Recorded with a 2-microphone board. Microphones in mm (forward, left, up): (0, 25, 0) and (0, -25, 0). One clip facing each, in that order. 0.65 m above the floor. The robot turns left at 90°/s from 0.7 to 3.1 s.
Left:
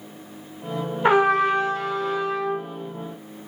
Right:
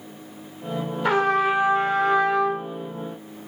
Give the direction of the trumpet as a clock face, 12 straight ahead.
11 o'clock.